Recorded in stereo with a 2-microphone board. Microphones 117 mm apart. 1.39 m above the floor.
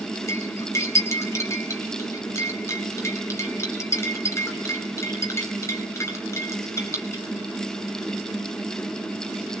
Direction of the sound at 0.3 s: 25° left (ahead or behind).